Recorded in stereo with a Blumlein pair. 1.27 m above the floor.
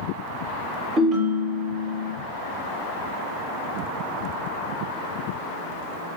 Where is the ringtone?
25° right, 0.6 m.